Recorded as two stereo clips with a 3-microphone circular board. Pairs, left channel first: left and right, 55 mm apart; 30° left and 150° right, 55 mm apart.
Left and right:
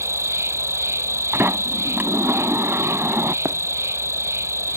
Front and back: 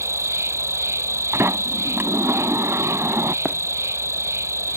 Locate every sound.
0.0 s an insect: 120° right
1.3 s a sliding door: 125° right
3.5 s running footsteps: 85° right